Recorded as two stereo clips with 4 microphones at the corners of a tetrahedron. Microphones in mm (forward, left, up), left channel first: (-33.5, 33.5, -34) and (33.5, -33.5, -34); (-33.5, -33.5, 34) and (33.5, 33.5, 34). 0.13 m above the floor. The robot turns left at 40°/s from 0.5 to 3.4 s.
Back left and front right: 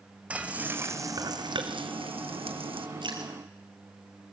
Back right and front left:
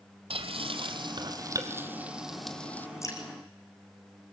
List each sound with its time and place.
0.3 s frying: 30° left, 1.4 m; by 2.9 s 65° right, 1.4 m
3.0 s dripping: 75° right, 3.5 m; by 3.2 s 85° right, 3.5 m